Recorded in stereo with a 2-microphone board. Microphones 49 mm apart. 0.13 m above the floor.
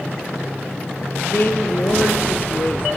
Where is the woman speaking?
50° left (ahead or behind), 2.5 m.